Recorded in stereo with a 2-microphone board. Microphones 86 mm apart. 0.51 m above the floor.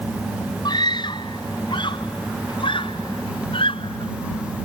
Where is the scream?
55° left (ahead or behind); by 4.1 s 80° left.